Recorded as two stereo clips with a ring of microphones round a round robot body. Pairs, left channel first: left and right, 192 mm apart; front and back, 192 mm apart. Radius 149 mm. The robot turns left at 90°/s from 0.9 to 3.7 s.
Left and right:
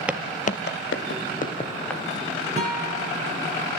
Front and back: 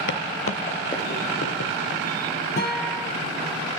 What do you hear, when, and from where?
0.1 s footsteps: 5° right, 0.8 m
2.6 s a guitar: 35° right, 7 m; by 3.0 s 80° right, 7 m